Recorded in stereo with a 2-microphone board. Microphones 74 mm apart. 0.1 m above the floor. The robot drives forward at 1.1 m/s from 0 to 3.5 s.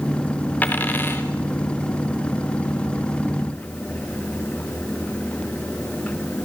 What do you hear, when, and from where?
0.6 s a dropped coin: 20° left (ahead or behind), 2.5 m; by 1.2 s 30° left (ahead or behind), 1.9 m